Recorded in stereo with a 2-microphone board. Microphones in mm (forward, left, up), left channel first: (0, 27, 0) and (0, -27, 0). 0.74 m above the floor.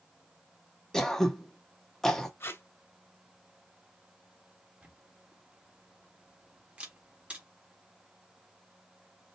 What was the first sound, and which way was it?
Throat clearing, 10° left (ahead or behind).